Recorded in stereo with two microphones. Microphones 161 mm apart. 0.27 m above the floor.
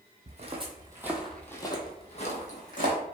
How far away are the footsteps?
About 0.7 m.